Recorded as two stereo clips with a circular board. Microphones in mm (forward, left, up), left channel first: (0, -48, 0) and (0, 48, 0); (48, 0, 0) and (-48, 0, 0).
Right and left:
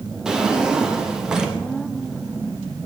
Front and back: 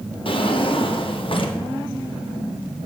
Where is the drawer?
10° left, 0.9 m.